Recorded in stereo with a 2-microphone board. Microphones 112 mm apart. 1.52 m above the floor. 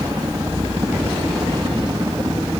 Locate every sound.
0.0 s a helicopter: 35° right (ahead or behind)